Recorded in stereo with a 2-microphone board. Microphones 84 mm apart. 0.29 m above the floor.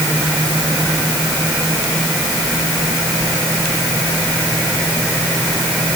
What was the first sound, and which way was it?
Only background noise.